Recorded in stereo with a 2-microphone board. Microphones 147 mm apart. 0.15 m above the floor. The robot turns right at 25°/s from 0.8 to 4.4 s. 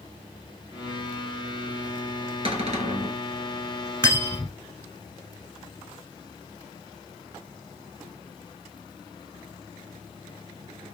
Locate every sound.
2.5 s a cupboard door: 40° right (ahead or behind), 0.7 m; by 3.2 s 55° right (ahead or behind), 0.7 m
4.0 s cutlery clinking: 20° left (ahead or behind), 1.0 m; by 4.5 s 10° left (ahead or behind), 1.0 m